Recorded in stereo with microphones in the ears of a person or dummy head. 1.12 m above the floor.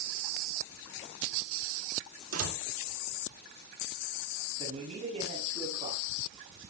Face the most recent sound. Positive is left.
turn(degrees=-40)  # may be behind; listen again after turning